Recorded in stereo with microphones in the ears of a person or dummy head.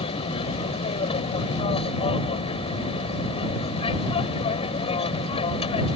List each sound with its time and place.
0.0 s an aircraft: 30° left (ahead or behind)